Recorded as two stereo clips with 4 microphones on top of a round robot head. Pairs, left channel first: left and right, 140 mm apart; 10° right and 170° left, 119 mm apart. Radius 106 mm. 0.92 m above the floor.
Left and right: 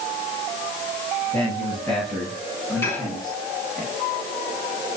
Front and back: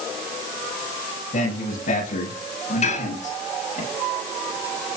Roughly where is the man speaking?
Ahead.